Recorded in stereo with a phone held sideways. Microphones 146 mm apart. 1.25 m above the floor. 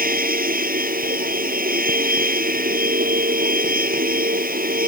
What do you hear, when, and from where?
0.0 s a machine running: 85° right